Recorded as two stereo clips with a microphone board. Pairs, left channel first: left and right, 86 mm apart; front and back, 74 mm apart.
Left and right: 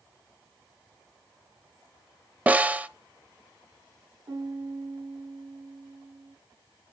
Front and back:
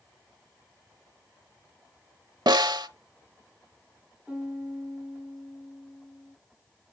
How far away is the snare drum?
About 0.8 m.